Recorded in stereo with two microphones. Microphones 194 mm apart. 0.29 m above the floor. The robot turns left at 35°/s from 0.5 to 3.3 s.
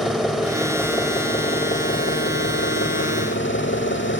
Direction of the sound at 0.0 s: Straight behind.